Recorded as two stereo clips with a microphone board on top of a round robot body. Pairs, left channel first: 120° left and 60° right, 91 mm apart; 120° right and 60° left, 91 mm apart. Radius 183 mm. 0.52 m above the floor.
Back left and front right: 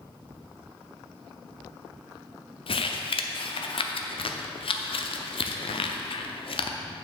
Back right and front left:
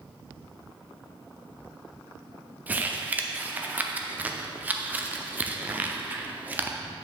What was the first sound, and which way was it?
Crumpling, 130° left.